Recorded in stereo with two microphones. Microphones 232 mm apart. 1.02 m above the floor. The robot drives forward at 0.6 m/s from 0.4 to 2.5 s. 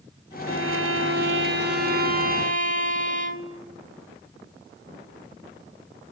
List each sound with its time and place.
0.5 s a violin: 75° right (ahead or behind), 1.0 m; by 3.7 s 35° right (ahead or behind), 1.7 m